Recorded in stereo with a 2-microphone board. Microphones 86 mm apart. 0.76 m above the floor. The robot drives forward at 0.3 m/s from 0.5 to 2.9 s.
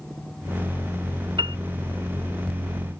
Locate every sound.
1.4 s a piano: 70° right (ahead or behind)